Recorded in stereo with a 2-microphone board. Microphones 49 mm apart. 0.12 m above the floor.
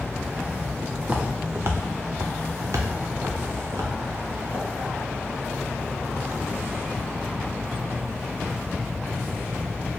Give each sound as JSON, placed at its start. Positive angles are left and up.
{"t": 1.0, "sound": "footsteps", "side_deg": -25, "distance_m": 1.0}